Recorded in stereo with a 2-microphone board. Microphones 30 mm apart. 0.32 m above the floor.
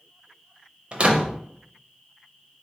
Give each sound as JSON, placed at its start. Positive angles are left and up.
{"t": 0.9, "sound": "a door slam", "side_deg": -40, "distance_m": 0.7}